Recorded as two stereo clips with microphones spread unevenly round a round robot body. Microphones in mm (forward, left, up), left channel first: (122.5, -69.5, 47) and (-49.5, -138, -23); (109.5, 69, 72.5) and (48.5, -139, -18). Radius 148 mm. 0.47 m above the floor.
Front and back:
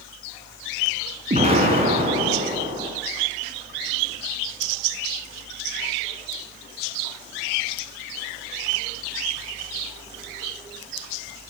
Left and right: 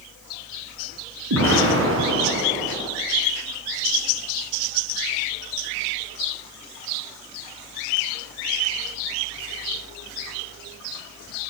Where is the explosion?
105° right, 5 m.